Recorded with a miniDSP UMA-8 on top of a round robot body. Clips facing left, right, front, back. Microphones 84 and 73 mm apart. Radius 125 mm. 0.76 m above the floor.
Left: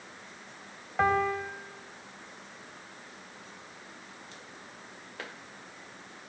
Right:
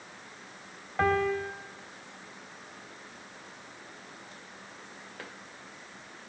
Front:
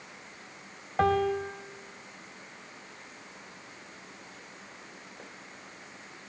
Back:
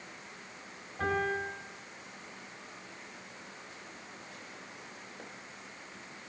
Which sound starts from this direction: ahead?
A piano, at 1.0 s.